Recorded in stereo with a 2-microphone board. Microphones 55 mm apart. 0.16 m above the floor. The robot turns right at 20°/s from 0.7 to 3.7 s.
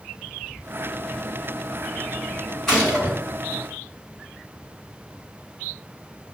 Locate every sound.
2.7 s a gunshot: 10° left (ahead or behind), 1.8 m